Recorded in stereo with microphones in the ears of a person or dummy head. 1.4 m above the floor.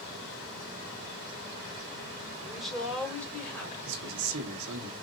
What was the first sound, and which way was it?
A woman speaking, 5° right (ahead or behind).